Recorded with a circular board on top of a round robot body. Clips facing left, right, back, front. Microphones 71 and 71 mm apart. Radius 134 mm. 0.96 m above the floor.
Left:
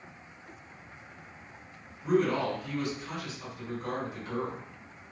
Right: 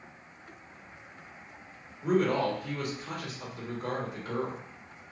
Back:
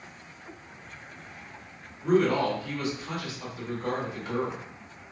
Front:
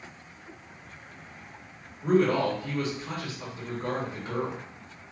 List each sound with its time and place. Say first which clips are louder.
2.0 s a man speaking: even, even; 55° right, 1.4 m